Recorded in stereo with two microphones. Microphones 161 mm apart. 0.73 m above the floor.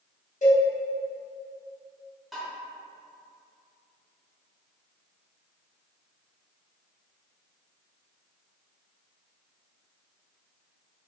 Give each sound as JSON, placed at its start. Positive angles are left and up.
{"t": 0.4, "sound": "a cowbell", "side_deg": 50, "distance_m": 0.8}
{"t": 2.3, "sound": "tapping", "side_deg": 0, "distance_m": 1.0}